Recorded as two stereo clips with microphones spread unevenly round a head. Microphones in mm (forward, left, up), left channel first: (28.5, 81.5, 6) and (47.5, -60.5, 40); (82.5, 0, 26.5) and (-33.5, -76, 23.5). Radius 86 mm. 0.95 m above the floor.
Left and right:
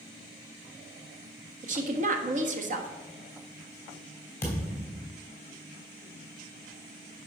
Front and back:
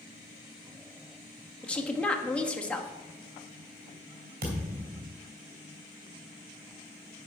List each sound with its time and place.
1.6 s a woman speaking: 50° right, 1.5 m
4.4 s a thud: 175° left, 2.5 m